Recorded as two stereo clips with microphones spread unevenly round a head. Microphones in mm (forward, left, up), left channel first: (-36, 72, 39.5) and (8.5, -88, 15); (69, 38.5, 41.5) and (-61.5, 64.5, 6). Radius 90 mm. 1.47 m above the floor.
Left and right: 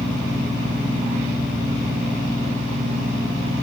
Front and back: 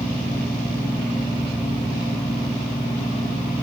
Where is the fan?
80° left, 6 m.